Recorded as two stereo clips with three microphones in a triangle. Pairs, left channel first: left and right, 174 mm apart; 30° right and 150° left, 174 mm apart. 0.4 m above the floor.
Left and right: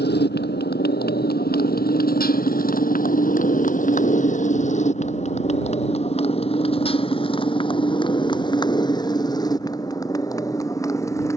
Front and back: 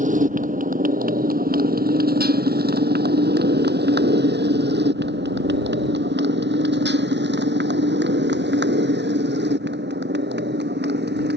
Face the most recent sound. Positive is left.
turn(degrees=165)